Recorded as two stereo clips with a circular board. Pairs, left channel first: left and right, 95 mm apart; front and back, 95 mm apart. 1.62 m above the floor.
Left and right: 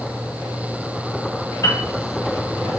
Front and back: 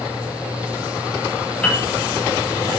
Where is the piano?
70° left, 0.8 m.